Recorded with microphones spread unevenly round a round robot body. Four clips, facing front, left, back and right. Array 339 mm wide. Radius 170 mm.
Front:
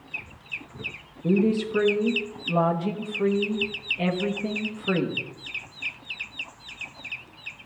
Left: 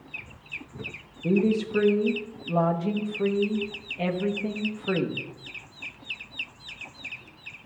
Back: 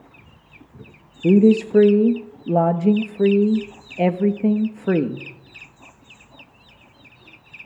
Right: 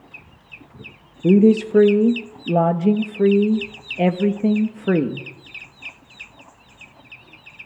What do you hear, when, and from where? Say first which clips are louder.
1.2 s a woman speaking: right 10 dB, back 8 dB; 130° right, 1.1 m